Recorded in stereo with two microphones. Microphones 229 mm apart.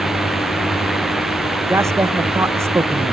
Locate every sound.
0.0 s a drone: centre (ahead or behind)
1.7 s a man speaking: 10° right (ahead or behind)